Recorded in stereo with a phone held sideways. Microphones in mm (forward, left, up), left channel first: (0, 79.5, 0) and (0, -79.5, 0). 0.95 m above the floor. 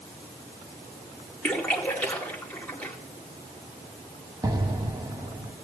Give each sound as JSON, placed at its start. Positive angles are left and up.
{"t": 1.4, "sound": "a splash", "side_deg": 10, "distance_m": 2.0}
{"t": 4.4, "sound": "an explosion", "side_deg": -25, "distance_m": 0.9}